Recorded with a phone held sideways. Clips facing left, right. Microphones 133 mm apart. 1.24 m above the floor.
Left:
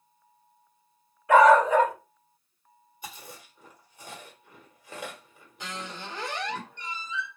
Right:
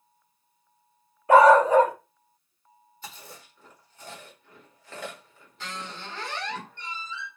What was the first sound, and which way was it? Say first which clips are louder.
A dog barking: right 2 dB; 30° right (ahead or behind).